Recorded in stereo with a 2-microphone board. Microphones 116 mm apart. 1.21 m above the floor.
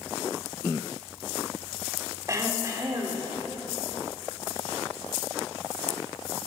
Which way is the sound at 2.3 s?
30° right (ahead or behind).